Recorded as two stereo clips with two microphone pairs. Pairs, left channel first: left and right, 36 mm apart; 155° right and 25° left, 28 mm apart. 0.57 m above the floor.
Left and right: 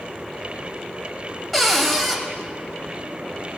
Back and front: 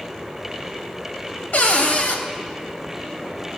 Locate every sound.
1.5 s a cupboard door: straight behind, 1.4 m